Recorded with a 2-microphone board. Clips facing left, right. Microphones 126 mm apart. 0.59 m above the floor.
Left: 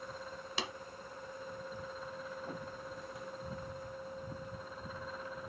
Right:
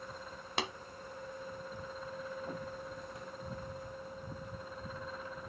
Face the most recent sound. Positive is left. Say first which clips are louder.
# right 4 dB
turn(degrees=-55)  # may be behind; listen again after turning